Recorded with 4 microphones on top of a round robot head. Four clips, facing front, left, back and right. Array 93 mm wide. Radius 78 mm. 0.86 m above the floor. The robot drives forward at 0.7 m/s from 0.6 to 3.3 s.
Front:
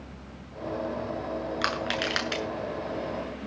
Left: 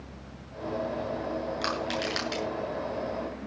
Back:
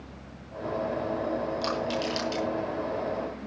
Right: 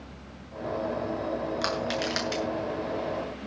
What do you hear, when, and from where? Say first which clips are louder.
1.6 s crushing: right 1 dB, even; 10° right, 8 m